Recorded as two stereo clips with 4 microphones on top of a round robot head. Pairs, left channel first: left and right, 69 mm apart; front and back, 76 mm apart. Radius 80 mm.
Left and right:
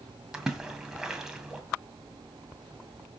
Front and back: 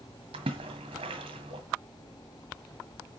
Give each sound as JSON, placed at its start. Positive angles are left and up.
{"t": 0.3, "sound": "a splash", "azimuth_deg": -170, "distance_m": 1.8}